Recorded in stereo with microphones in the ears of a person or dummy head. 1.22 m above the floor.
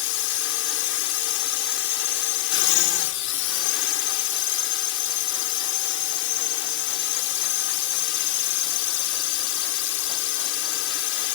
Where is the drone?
65° left (ahead or behind).